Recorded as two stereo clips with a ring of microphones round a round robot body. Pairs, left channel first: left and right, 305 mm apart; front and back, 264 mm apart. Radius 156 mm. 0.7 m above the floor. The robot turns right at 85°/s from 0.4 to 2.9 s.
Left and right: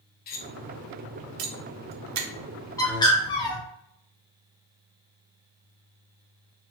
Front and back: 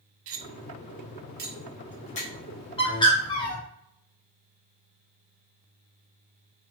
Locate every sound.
0.3 s cutlery clinking: 145° left, 0.6 m; by 2.3 s 50° right, 0.6 m
2.8 s a bird: 30° left, 1.0 m; by 3.6 s 40° left, 1.0 m